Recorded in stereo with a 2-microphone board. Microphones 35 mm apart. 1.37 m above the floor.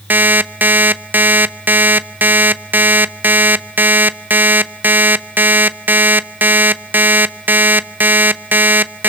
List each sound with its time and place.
0.1 s an alarm clock: 60° right (ahead or behind), 0.7 m